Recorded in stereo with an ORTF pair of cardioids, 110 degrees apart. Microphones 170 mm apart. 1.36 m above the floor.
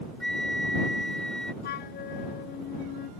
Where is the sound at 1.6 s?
65° left.